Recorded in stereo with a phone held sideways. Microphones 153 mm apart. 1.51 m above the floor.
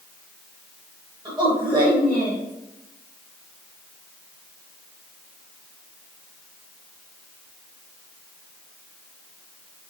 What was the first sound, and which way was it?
A woman speaking, 25° right (ahead or behind).